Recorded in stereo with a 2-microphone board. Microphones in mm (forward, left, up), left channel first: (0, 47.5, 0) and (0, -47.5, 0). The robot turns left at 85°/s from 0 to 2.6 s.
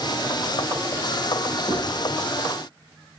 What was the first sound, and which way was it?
Writing, 80° left.